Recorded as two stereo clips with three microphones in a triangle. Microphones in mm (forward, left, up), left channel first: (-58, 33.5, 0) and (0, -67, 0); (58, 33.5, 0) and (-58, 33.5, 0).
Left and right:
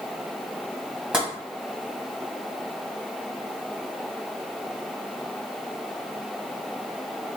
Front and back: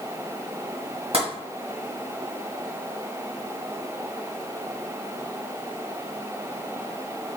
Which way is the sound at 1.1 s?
140° right.